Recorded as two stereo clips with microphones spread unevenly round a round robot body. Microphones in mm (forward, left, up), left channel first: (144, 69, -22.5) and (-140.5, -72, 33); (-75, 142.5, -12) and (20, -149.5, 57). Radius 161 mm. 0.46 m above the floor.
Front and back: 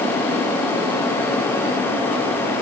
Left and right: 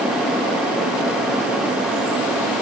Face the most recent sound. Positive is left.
No sound to turn to.